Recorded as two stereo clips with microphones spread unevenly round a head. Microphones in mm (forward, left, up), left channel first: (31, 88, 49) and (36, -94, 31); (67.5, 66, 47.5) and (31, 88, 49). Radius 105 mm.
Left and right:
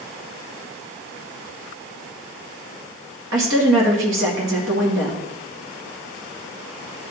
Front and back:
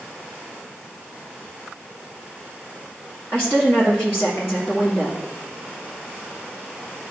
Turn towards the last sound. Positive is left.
turn(degrees=-120)